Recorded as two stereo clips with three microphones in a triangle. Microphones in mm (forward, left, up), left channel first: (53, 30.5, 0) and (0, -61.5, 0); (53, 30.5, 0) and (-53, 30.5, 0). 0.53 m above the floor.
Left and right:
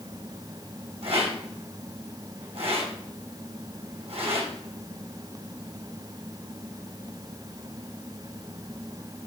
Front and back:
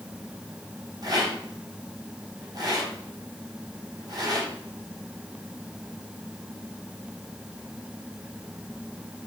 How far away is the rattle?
About 4 m.